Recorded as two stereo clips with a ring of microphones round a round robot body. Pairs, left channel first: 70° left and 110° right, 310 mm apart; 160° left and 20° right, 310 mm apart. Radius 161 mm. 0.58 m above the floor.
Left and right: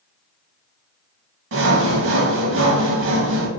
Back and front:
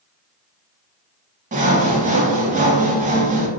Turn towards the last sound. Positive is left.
turn(degrees=-80)